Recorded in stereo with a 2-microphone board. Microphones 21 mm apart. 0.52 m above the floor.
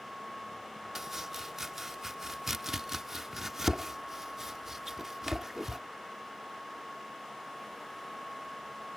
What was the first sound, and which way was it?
Chopping, 15° right (ahead or behind).